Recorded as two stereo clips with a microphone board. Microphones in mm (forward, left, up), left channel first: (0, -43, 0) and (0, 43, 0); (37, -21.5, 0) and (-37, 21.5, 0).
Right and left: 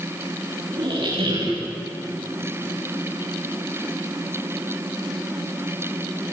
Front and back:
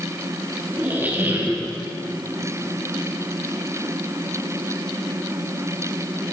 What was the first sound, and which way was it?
A squeak, 85° left.